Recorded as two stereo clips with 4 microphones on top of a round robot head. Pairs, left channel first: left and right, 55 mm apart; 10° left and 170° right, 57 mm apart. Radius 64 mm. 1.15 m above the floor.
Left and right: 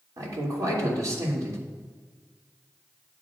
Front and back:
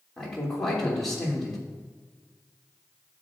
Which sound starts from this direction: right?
A man speaking, at 0.2 s.